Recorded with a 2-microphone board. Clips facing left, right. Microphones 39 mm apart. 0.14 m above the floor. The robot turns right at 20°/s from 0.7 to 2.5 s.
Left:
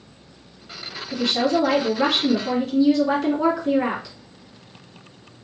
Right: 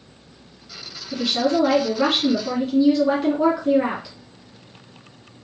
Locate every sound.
1.1 s a woman speaking: centre (ahead or behind), 1.5 m; by 4.2 s 10° right (ahead or behind), 1.5 m